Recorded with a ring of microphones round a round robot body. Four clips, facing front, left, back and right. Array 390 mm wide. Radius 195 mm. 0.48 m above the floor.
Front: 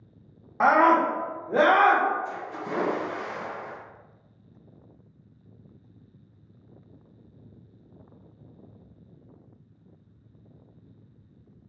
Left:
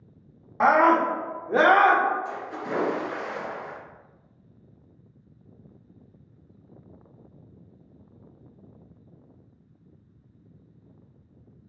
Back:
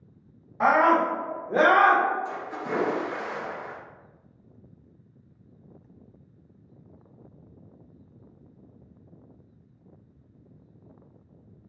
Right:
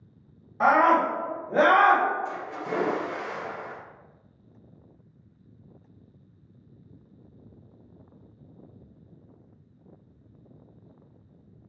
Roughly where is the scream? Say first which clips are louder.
Left 1 dB, front 1 dB; ahead left.